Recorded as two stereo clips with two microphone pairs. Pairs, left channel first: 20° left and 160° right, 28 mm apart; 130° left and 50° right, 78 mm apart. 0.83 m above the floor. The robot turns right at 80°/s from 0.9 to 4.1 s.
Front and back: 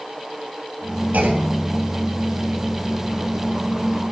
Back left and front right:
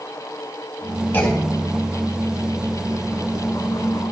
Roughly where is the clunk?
Behind.